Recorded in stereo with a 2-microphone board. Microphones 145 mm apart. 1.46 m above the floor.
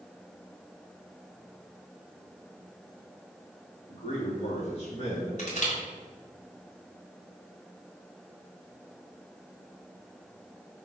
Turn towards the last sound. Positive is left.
turn(degrees=55)  # may be behind; listen again after turning